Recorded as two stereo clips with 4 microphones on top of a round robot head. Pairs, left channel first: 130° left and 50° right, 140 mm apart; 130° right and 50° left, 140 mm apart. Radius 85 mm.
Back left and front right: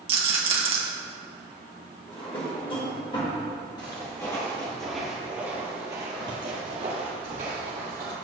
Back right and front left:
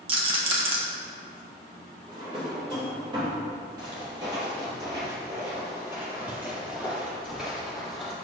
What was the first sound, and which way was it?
A rattle, straight ahead.